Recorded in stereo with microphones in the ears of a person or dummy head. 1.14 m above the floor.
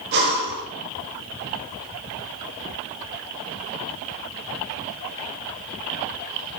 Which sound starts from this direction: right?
Breathing, at 0.1 s.